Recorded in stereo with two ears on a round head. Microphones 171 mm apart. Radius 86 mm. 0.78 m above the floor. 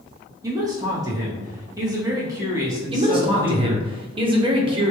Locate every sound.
0.4 s a man speaking: 20° right (ahead or behind), 1.1 m
2.9 s a man speaking: 25° right (ahead or behind), 0.8 m